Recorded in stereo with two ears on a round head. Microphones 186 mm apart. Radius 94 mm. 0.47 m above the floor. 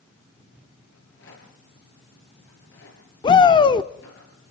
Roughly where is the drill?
I don't hear a drill.